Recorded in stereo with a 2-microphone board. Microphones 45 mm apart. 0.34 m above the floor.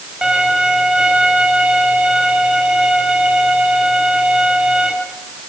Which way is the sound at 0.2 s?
20° right (ahead or behind).